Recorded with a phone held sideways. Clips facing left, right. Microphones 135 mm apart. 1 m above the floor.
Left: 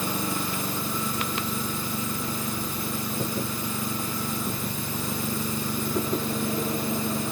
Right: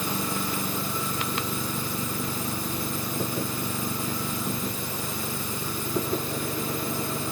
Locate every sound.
Only background noise.